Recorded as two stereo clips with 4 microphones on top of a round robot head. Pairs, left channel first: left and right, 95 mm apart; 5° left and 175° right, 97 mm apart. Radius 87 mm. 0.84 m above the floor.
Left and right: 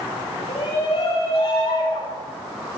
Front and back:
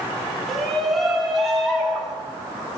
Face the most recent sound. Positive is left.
turn(degrees=95)